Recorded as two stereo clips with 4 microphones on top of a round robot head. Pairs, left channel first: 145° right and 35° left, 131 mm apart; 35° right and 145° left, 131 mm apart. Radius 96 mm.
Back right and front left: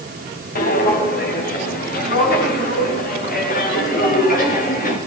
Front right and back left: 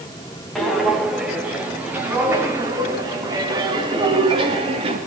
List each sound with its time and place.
0.6 s footsteps: 125° right, 8.5 m; by 5.0 s 165° right, 8.5 m